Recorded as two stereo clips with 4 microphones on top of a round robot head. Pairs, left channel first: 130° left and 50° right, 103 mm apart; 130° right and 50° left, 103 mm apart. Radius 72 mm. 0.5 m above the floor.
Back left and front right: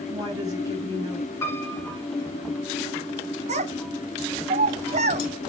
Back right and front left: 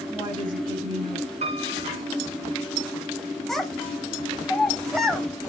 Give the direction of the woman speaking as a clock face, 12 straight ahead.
12 o'clock.